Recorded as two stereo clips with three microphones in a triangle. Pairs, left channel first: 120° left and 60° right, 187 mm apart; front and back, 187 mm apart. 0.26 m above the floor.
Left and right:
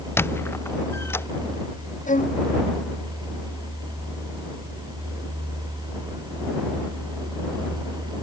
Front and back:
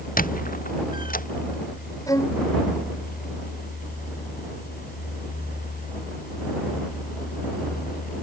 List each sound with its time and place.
0.2 s a squeak: 40° left
2.1 s a violin: 75° left